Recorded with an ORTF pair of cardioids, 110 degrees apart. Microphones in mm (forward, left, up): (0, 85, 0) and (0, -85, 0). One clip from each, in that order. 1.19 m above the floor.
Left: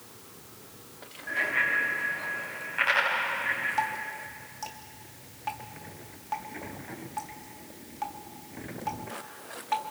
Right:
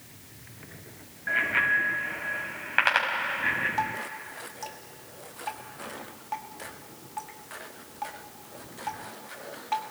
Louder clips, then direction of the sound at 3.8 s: Even; 5° left.